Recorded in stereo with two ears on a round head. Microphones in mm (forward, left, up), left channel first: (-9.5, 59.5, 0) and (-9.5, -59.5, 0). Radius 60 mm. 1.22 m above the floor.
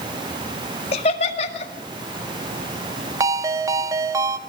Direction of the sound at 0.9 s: 45° left (ahead or behind).